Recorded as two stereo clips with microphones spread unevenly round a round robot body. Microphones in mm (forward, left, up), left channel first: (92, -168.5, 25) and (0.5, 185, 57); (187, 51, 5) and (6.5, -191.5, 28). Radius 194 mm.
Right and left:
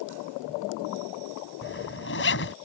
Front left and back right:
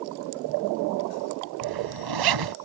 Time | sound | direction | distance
1.6 | a zipper | 135° right | ?